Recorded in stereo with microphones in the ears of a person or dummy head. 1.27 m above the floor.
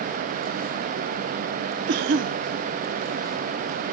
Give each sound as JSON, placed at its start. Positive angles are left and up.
{"t": 1.9, "sound": "a cough", "side_deg": -55, "distance_m": 0.7}